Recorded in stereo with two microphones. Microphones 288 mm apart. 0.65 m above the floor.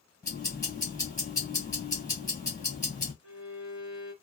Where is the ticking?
10° left (ahead or behind), 1.6 m.